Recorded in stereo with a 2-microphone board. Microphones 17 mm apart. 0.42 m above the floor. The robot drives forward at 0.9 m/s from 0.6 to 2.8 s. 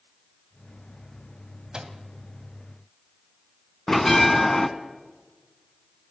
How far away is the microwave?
About 2 m.